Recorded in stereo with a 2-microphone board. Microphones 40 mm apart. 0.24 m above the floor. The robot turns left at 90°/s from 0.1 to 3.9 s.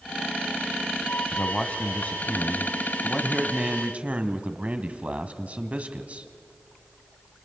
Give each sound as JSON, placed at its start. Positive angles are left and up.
{"t": 1.3, "sound": "a man speaking", "azimuth_deg": 170, "distance_m": 1.6}